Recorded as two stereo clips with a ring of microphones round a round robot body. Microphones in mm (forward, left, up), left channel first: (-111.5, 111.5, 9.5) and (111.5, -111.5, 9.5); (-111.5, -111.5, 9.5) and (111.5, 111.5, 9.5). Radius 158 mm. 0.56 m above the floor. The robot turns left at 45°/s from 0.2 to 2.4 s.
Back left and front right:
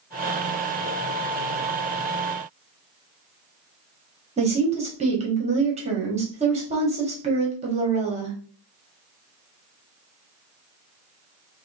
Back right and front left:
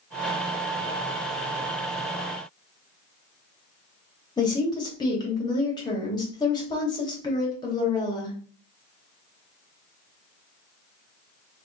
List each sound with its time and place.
4.4 s a woman speaking: 80° right, 0.9 m